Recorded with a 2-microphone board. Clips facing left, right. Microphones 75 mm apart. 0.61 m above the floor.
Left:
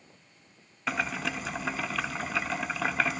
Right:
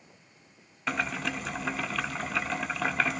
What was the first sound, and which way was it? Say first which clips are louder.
Boiling: even; centre (ahead or behind).